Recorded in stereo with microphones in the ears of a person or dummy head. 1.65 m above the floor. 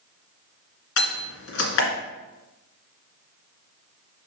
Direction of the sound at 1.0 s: 70° left (ahead or behind).